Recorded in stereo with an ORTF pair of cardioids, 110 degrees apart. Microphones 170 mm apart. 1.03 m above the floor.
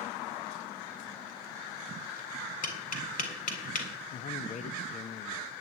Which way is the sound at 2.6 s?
55° left.